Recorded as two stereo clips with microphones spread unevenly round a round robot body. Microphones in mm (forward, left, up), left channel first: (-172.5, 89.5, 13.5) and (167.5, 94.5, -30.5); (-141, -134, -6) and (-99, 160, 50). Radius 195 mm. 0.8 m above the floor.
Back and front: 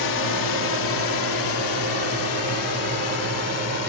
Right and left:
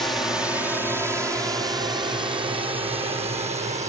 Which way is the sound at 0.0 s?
Straight behind.